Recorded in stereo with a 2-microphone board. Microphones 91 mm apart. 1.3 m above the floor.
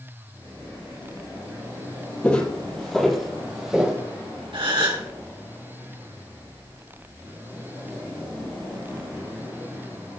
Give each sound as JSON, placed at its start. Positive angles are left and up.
{"t": 2.2, "sound": "footsteps", "side_deg": 15, "distance_m": 2.5}
{"t": 4.5, "sound": "a gasp", "side_deg": -70, "distance_m": 2.5}